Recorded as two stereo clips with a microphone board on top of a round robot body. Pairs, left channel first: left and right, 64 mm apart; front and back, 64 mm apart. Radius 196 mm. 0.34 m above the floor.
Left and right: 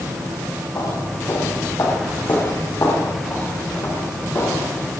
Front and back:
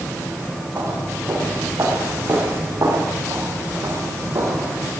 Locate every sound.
0.8 s footsteps: 130° left, 9 m; by 4.9 s 140° left, 11 m